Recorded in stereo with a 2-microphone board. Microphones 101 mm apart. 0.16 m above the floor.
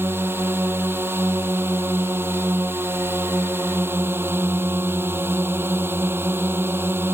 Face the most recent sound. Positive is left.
turn(degrees=-25)  # may be behind; listen again after turning